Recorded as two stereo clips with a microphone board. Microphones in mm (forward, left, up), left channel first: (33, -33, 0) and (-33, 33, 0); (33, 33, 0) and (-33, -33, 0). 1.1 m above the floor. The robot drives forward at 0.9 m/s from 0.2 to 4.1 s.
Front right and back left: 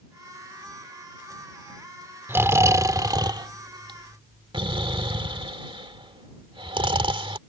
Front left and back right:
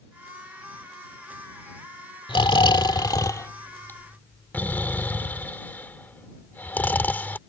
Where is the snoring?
70° left; by 7.4 s 115° left.